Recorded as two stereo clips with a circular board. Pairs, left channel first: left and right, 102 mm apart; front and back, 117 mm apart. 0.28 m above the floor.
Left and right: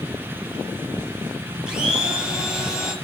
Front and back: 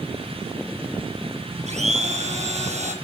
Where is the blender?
170° right, 6.5 m.